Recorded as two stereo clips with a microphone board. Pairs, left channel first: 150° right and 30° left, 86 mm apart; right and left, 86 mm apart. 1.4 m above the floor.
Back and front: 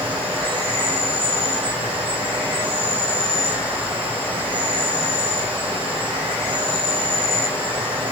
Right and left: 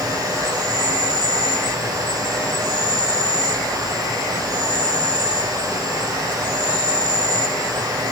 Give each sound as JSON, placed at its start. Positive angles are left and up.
{"t": 0.0, "sound": "an insect", "azimuth_deg": 35, "distance_m": 5.0}